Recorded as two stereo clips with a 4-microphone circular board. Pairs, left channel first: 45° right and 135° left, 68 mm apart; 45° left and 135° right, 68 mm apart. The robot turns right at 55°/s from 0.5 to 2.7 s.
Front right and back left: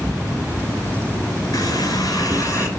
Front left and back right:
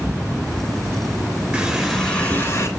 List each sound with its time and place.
1.5 s a running tap: 60° right, 3.5 m; by 2.7 s 5° left, 3.5 m